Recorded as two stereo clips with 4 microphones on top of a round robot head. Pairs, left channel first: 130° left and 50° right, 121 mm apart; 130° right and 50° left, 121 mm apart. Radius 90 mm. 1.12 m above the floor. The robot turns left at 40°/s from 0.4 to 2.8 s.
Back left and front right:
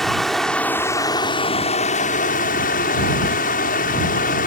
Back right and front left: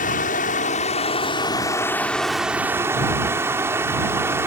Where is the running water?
145° right; by 4.5 s 120° left.